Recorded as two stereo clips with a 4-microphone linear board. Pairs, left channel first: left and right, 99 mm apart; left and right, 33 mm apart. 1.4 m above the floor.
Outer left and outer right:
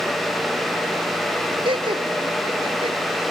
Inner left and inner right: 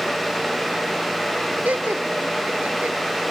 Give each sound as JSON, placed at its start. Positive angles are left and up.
{"t": 1.6, "sound": "laughter", "side_deg": -60}